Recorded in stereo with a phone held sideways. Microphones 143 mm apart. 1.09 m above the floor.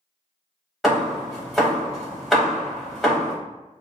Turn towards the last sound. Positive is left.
turn(degrees=-5)  # may be behind; listen again after turning